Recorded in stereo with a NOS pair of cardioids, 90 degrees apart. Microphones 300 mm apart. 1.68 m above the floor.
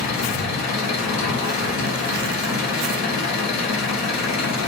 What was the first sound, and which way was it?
An engine running, 65° left.